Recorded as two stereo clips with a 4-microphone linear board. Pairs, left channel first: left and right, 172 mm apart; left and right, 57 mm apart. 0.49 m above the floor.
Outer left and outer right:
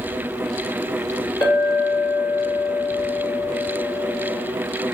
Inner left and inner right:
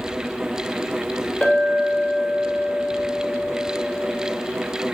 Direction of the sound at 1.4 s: 25° left (ahead or behind).